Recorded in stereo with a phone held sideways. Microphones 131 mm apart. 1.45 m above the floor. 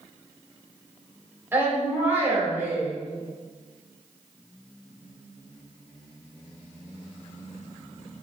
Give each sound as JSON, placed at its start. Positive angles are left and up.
{"t": 1.5, "sound": "a woman speaking", "side_deg": -15, "distance_m": 4.0}